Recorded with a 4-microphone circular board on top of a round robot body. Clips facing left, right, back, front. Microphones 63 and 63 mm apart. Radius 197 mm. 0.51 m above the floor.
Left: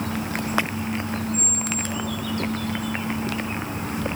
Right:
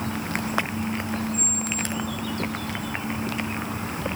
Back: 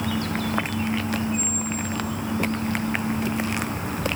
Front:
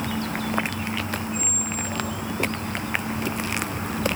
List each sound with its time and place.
1.3 s a squeak: straight ahead, 6 m